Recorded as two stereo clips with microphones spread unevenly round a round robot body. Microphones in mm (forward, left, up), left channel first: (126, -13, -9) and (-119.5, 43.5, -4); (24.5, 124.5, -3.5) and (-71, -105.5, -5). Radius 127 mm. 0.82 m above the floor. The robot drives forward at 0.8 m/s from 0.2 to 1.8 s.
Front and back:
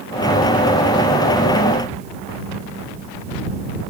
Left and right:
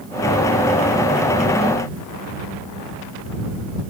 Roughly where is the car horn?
I don't hear a car horn.